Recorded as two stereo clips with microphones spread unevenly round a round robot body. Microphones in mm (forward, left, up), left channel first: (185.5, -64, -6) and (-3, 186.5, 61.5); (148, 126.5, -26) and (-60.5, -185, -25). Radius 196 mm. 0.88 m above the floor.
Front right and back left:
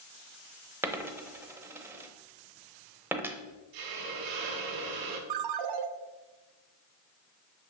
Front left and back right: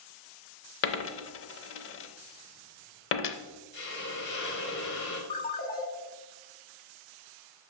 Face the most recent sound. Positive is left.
turn(degrees=125)